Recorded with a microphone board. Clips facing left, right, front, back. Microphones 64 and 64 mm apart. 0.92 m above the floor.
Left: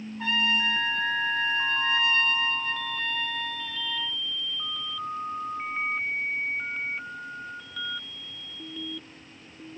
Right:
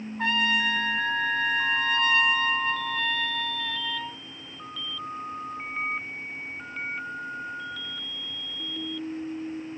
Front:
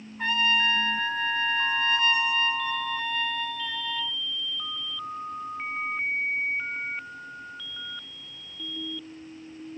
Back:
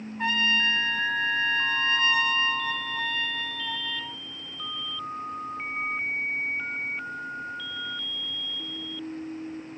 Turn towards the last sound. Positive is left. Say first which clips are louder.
# right 2 dB, front 1 dB
turn(degrees=-95)